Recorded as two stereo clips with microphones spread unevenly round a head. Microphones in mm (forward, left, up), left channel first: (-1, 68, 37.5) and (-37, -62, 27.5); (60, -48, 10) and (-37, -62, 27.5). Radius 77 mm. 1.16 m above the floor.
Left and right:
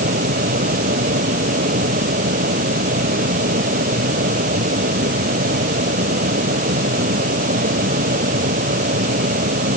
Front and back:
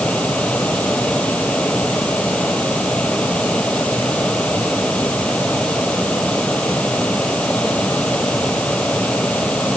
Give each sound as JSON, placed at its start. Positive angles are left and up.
{"t": 0.0, "sound": "a fan", "azimuth_deg": -70}